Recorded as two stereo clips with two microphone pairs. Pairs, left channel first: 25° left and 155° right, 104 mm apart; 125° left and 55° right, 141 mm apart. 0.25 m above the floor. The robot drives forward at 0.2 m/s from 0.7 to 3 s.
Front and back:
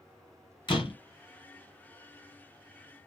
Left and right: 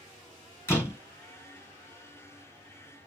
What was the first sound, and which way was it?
A door slam, 60° left.